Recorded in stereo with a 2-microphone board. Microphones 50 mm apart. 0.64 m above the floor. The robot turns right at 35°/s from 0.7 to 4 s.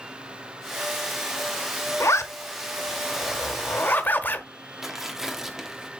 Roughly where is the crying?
I don't hear crying.